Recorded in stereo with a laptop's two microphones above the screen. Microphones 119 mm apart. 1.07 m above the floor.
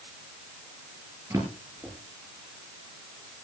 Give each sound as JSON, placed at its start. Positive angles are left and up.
{"t": 1.3, "sound": "a drawer", "side_deg": -25, "distance_m": 6.0}